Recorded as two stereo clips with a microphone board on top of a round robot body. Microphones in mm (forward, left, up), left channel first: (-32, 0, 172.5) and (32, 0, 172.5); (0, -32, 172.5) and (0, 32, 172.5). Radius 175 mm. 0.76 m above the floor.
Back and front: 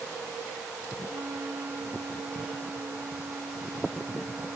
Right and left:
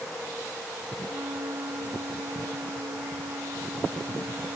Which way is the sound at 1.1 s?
55° left.